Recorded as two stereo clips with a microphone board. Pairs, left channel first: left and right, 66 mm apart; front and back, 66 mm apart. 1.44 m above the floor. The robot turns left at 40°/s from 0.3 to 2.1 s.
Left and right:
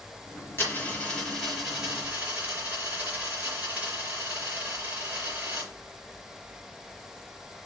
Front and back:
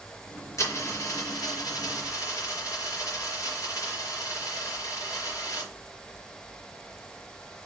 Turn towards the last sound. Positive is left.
turn(degrees=-30)